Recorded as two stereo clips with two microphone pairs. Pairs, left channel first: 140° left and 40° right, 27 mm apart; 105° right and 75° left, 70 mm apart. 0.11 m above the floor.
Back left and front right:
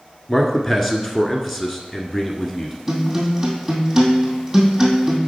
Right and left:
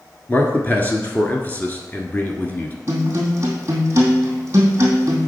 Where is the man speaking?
130° right, 1.2 m.